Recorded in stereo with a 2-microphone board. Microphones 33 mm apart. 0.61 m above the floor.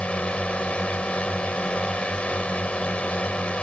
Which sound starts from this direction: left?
A drone, at 0.0 s.